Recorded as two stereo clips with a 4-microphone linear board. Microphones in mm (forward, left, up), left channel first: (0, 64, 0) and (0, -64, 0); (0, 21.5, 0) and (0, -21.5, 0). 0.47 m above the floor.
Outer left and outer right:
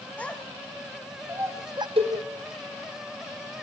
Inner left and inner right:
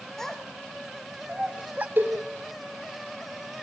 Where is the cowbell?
50° right (ahead or behind), 4 m.